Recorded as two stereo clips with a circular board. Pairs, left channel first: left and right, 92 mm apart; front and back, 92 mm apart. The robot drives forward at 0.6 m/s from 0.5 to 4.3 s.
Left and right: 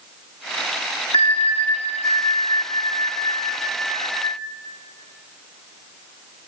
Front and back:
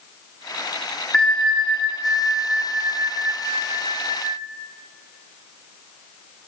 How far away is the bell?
About 1.7 m.